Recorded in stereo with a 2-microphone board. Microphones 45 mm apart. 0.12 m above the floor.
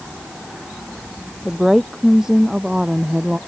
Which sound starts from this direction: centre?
A woman speaking, at 1.4 s.